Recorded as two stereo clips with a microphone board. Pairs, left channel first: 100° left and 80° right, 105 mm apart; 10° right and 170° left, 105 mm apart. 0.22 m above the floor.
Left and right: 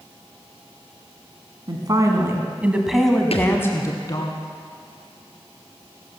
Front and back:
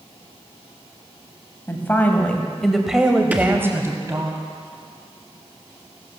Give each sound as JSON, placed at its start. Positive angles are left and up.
{"t": 1.7, "sound": "a woman speaking", "azimuth_deg": -70, "distance_m": 1.7}
{"t": 3.3, "sound": "a thud", "azimuth_deg": 95, "distance_m": 1.8}